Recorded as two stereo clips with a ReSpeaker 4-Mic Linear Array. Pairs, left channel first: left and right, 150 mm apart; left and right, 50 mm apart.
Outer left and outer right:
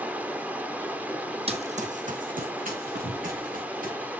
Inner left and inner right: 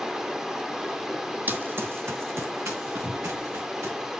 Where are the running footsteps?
40° right (ahead or behind), 1.1 m; by 3.9 s 70° right (ahead or behind), 4.5 m.